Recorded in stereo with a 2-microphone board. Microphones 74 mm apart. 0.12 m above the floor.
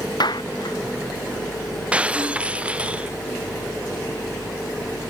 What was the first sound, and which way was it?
A clap, 70° left (ahead or behind).